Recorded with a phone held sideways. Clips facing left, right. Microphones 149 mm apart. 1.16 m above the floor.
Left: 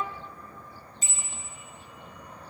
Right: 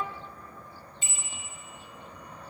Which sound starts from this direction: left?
A bicycle bell, at 1.0 s.